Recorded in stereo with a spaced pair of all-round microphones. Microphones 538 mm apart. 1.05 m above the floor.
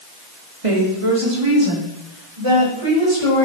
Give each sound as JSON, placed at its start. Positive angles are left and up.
{"t": 0.6, "sound": "a woman speaking", "side_deg": -75, "distance_m": 3.0}